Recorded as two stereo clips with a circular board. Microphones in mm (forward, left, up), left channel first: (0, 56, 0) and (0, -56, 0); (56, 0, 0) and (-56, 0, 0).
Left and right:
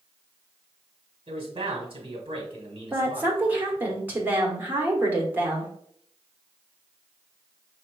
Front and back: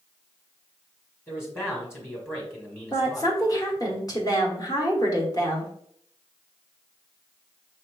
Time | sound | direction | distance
1.3 | a man speaking | 65° right | 2.0 m
2.9 | a woman speaking | 30° right | 1.4 m